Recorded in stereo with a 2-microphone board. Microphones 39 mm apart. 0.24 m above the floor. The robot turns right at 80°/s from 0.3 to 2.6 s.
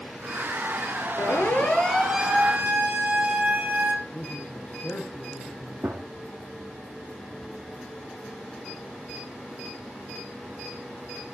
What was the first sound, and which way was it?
A siren, 70° left (ahead or behind).